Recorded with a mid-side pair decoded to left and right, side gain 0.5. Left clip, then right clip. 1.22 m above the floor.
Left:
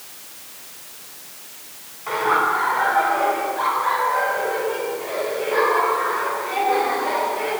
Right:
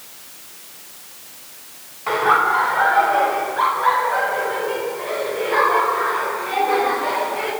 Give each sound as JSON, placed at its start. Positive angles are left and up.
{"t": 2.1, "sound": "laughter", "azimuth_deg": -40, "distance_m": 6.5}